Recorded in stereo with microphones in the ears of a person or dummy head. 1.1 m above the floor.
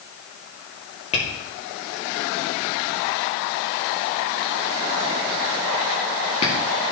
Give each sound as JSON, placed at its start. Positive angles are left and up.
{"t": 1.1, "sound": "tapping", "side_deg": 40, "distance_m": 2.5}